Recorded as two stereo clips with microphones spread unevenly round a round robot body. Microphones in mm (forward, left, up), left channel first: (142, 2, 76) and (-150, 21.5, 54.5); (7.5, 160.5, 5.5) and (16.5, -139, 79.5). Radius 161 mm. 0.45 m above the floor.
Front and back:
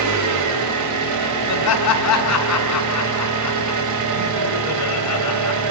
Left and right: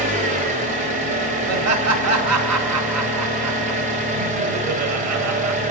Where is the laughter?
40° right, 2.5 m.